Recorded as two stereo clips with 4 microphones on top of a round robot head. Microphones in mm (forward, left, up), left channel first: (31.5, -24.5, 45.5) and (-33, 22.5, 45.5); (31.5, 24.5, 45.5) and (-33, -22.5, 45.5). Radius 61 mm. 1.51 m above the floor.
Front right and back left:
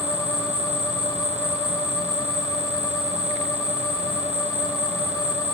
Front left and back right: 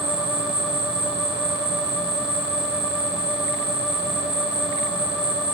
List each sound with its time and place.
0.0 s an insect: 95° right, 3 m